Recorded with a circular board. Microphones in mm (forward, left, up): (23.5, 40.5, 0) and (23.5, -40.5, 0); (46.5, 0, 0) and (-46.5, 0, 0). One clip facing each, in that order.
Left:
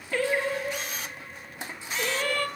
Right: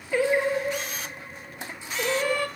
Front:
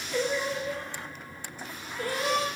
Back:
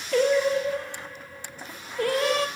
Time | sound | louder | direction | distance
0.1 | singing | right 4 dB, back 8 dB | 165° right | 0.9 m